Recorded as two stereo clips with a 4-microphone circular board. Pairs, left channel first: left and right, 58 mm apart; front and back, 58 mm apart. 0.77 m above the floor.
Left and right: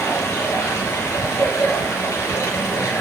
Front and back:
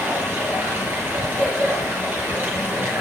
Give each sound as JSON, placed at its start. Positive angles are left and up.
{"t": 0.0, "sound": "running water", "azimuth_deg": 130, "distance_m": 6.5}